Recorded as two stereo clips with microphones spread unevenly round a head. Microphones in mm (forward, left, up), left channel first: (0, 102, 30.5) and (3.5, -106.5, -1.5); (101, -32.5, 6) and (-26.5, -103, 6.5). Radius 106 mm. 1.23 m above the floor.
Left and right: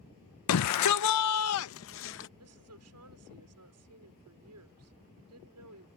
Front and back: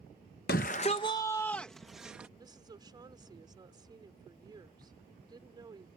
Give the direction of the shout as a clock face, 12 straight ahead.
9 o'clock.